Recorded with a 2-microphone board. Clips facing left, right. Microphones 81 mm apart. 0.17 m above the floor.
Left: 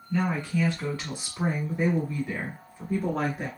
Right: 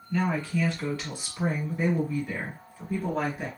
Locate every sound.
0.1 s a woman speaking: 15° left (ahead or behind), 1.4 m; by 3.5 s 20° left (ahead or behind), 1.4 m